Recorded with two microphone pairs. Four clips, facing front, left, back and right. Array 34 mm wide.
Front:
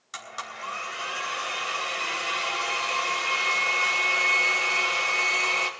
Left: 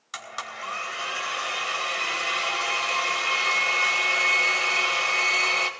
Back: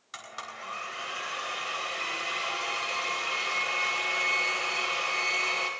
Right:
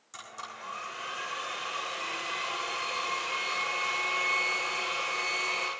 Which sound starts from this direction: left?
A blender, at 0.1 s.